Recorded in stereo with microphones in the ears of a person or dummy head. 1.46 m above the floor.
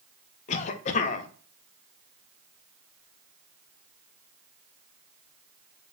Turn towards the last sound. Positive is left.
turn(degrees=45)  # may be behind; listen again after turning